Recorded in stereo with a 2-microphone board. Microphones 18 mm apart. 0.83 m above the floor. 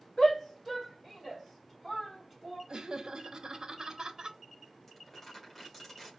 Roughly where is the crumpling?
Centre.